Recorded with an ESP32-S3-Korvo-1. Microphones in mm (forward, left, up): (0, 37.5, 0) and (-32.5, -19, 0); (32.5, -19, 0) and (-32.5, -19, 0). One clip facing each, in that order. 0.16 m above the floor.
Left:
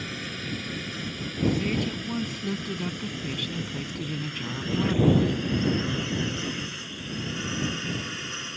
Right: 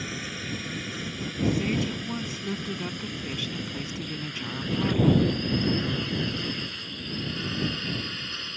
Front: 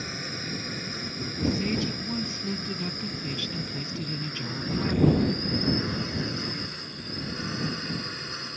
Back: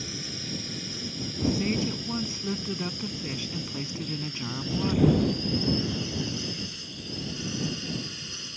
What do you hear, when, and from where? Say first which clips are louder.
0.0 s a drone: even, front 3 dB; 35° right; by 8.6 s 15° right
1.4 s a woman speaking: even, back 1 dB; 160° left